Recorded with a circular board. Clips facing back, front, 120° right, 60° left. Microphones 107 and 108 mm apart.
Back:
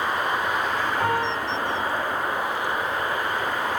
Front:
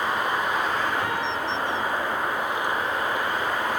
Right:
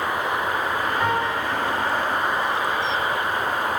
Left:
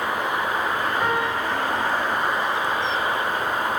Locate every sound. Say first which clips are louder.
1.0 s a piano: back 3 dB, even; 145° left, 6 m